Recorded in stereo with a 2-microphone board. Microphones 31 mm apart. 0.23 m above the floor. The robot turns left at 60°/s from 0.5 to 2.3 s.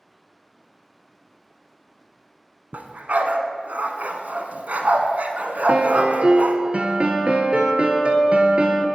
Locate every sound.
2.7 s a dog barking: 65° right (ahead or behind), 0.9 m
5.7 s a piano: 40° right (ahead or behind), 1.1 m